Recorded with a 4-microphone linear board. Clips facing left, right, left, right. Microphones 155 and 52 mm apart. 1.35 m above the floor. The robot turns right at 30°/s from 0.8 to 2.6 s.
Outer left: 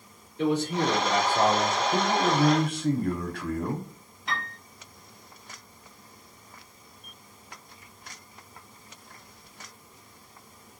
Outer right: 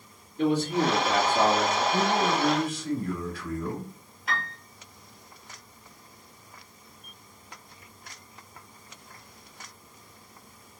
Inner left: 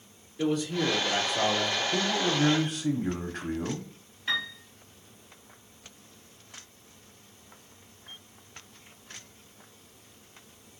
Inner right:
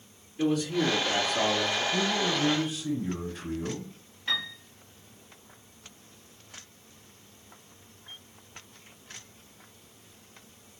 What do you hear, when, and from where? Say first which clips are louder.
0.4 s a man speaking: outer right 1 dB, inner right 1 dB; 95° right, 2.5 m; by 1.8 s 65° right, 2.5 m
1.9 s a man speaking: outer left 1 dB, even; 40° left (ahead or behind), 0.7 m; by 3.9 s 55° left (ahead or behind), 0.7 m
4.3 s a piano: outer right 1 dB, inner left 1 dB; 5° right (ahead or behind), 2 m